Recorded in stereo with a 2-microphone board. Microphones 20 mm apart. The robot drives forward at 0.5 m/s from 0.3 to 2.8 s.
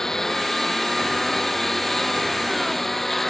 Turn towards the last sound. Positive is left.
turn(degrees=10)  # may be behind; listen again after turning